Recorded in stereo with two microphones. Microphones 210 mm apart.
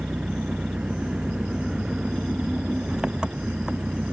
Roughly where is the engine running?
Centre.